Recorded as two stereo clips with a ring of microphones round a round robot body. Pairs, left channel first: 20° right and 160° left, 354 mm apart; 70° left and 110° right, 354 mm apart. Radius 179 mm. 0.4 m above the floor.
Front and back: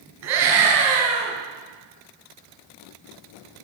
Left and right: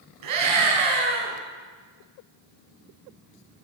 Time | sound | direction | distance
0.2 | a scream | 150° right | 3 m